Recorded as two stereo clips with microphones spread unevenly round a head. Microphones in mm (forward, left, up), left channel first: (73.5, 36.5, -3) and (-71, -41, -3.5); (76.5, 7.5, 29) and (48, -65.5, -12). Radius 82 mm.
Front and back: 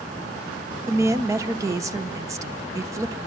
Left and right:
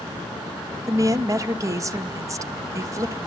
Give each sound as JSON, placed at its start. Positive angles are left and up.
{"t": 0.9, "sound": "a woman speaking", "azimuth_deg": -80, "distance_m": 1.0}